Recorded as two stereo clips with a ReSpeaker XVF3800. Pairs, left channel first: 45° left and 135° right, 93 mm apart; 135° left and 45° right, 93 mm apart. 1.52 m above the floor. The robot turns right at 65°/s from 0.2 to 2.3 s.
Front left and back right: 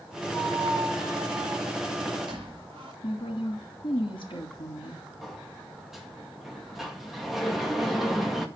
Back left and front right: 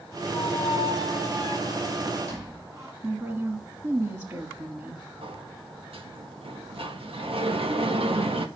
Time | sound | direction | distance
0.3 | a squeak | 130° left | 5.5 m
3.0 | a woman speaking | 20° left | 3 m
5.2 | a sliding door | 45° right | 1.8 m